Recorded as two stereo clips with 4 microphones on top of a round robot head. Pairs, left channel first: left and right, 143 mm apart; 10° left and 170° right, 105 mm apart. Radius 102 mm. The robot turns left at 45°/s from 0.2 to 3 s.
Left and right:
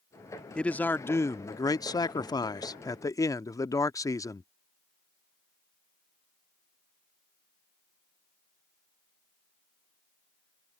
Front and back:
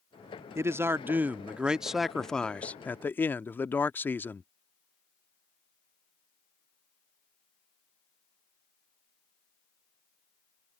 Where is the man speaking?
165° left; by 4.5 s 55° left.